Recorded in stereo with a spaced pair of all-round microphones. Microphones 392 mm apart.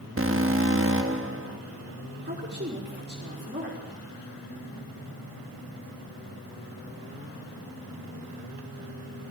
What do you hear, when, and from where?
0.2 s an alarm: 35° right (ahead or behind), 1.4 m
2.2 s a woman speaking: 25° right (ahead or behind), 4.5 m